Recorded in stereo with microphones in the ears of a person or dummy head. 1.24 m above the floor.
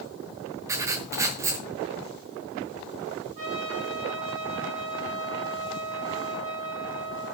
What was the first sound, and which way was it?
Writing, 15° right (ahead or behind).